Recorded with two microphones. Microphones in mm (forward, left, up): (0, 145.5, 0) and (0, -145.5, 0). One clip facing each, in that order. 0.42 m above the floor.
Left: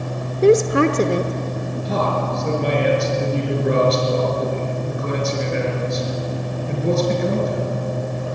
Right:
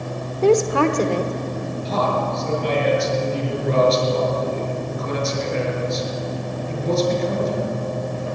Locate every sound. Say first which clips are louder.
0.4 s a woman speaking: left 2 dB; 20° left (ahead or behind), 1.2 m
1.9 s a man speaking: left 1 dB; 65° left (ahead or behind), 6 m